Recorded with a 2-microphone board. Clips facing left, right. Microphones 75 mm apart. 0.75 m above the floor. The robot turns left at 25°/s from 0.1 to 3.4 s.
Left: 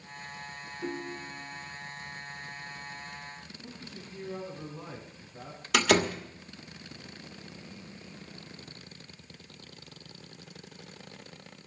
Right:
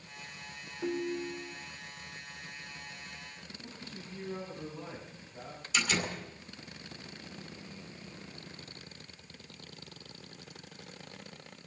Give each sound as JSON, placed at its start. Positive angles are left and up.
{"t": 0.8, "sound": "a ringtone", "side_deg": -10, "distance_m": 1.3}
{"t": 3.6, "sound": "a man speaking", "side_deg": 0, "distance_m": 7.0}
{"t": 5.7, "sound": "a door slam", "side_deg": 75, "distance_m": 1.5}